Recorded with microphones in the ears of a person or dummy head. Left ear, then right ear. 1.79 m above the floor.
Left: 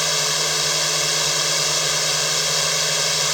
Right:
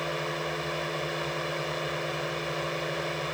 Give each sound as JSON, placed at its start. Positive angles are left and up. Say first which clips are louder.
{"t": 0.0, "sound": "a drone", "louder": "left 11 dB", "side_deg": 80}